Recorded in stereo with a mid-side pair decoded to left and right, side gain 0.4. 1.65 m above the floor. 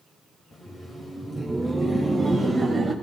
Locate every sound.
0.5 s laughter: 35° left, 3.5 m; by 2.9 s 5° right, 3.5 m